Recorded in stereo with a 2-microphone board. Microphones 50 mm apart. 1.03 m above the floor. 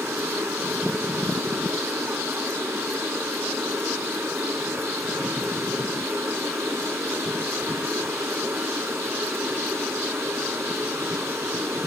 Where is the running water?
65° right (ahead or behind), 4 m.